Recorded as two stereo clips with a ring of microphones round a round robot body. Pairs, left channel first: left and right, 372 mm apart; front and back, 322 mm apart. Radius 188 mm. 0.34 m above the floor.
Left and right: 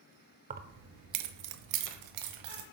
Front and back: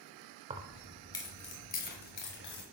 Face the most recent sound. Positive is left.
turn(degrees=-60)